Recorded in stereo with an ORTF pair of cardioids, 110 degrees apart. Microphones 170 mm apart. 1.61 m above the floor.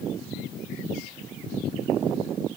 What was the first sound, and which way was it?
Only background noise.